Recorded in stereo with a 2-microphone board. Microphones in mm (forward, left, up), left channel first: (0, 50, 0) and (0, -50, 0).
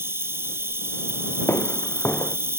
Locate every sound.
0.0 s an insect: 25° right (ahead or behind)
1.5 s footsteps: 25° left (ahead or behind)